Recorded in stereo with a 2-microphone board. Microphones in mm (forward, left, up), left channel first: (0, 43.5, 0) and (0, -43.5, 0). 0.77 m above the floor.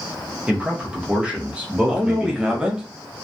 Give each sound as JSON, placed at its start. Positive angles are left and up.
{"t": 0.5, "sound": "a man speaking", "side_deg": -15, "distance_m": 0.8}
{"t": 1.9, "sound": "a man speaking", "side_deg": -10, "distance_m": 0.7}